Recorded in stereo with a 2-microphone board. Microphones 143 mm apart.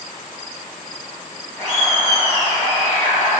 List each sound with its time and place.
1.6 s laughter: 20° left (ahead or behind), 1.7 m